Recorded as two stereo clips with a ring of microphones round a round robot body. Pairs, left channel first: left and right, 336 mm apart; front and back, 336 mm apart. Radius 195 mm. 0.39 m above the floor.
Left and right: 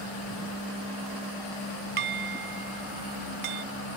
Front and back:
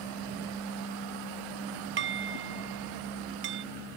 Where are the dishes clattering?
120° right.